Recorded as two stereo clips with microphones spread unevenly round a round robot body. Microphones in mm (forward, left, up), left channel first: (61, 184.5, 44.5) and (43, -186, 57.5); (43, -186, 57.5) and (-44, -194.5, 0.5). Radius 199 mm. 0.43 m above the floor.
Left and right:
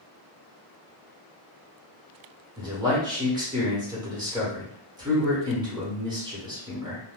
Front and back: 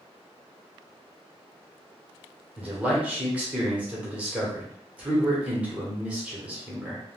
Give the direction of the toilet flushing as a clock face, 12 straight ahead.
No toilet flushing in this recording.